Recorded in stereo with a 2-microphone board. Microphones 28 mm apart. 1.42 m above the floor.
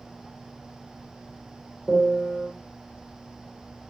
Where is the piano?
10° left (ahead or behind), 0.8 m.